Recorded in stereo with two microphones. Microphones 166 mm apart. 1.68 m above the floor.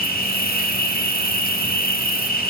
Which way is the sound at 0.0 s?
60° left (ahead or behind).